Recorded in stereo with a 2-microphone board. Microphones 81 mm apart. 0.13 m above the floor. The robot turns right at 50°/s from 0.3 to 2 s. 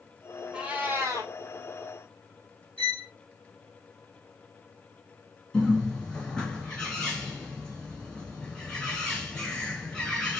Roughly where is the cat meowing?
Behind.